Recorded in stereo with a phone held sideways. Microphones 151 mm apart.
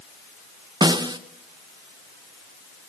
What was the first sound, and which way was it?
A snare drum, 30° right (ahead or behind).